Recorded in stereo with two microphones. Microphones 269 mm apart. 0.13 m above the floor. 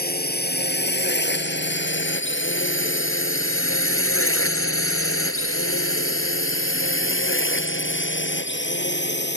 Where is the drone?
35° left (ahead or behind); by 9.4 s 40° left (ahead or behind).